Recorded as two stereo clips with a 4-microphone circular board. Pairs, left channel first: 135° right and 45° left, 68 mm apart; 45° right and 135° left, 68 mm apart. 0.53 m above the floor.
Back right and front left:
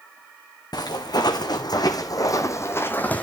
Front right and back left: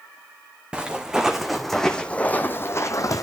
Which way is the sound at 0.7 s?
150° right.